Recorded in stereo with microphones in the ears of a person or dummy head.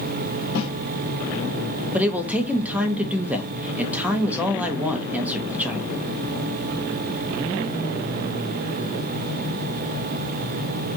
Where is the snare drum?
70° left (ahead or behind), 1.8 m.